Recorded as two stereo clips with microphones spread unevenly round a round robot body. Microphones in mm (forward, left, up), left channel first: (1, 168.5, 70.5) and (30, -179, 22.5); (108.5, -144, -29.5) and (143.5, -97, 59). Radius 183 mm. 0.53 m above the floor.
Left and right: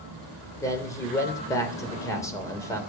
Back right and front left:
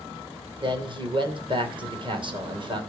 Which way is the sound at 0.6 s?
10° left.